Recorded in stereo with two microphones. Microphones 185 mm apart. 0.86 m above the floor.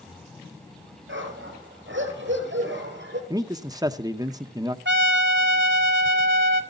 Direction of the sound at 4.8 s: 80° right.